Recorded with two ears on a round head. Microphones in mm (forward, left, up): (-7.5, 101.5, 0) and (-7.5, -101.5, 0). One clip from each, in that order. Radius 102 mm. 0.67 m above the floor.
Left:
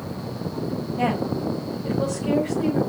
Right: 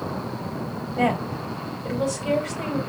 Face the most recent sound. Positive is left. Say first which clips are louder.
# right 1 dB
turn(degrees=-65)  # may be behind; listen again after turning